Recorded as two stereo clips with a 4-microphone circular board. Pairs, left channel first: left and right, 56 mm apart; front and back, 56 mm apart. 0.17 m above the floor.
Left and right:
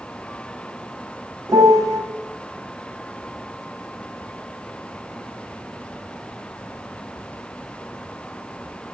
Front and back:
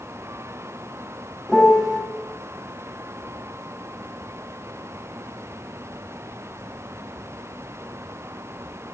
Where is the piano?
95° right, 4 m.